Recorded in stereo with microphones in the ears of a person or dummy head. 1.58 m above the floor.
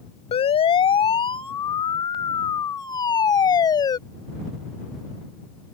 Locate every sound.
0.3 s a siren: 30° left (ahead or behind); by 4.0 s 20° left (ahead or behind)